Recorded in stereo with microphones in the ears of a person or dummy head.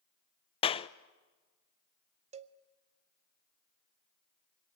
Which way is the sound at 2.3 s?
30° right (ahead or behind).